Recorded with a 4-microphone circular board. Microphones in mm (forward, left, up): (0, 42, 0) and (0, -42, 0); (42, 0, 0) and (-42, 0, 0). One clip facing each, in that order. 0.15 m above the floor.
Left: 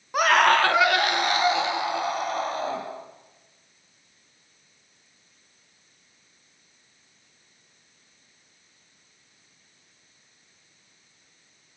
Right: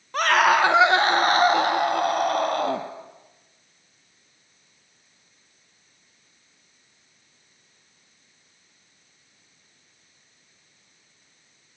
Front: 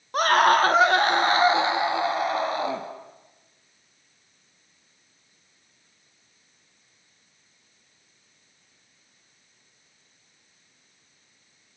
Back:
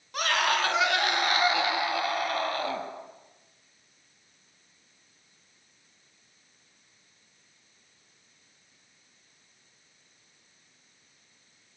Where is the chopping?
No chopping in this recording.